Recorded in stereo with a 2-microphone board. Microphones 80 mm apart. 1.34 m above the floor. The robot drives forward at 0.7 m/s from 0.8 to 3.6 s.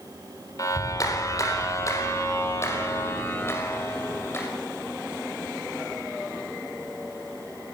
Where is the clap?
45° left (ahead or behind), 4 m; by 4.5 s 30° left (ahead or behind), 5.5 m.